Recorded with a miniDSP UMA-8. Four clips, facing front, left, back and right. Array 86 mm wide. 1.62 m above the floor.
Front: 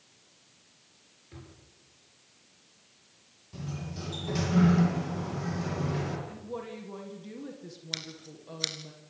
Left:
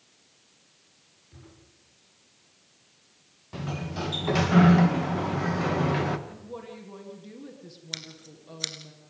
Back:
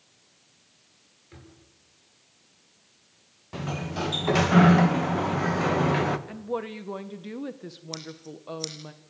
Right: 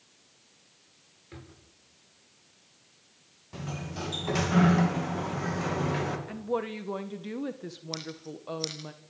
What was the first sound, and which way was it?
A drawer, 105° right.